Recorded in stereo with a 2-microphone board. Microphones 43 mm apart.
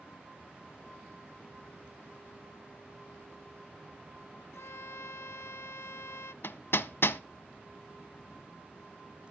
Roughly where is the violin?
Left.